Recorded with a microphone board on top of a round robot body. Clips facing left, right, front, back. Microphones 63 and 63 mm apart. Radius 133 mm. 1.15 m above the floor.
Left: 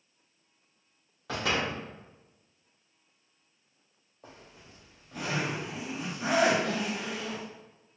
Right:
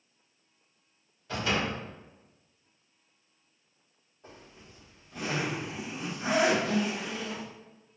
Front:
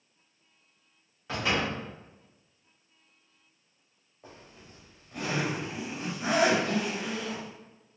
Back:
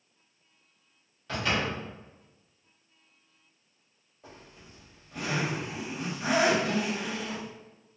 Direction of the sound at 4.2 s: 70° left.